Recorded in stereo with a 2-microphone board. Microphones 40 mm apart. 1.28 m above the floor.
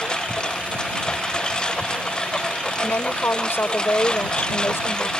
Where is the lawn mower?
20° left (ahead or behind).